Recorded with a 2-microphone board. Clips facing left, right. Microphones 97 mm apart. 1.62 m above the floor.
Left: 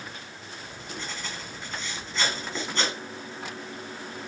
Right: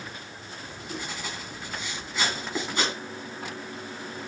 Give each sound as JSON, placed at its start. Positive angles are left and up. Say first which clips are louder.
{"t": 0.6, "sound": "writing", "louder": "right 2 dB", "side_deg": -10, "distance_m": 2.0}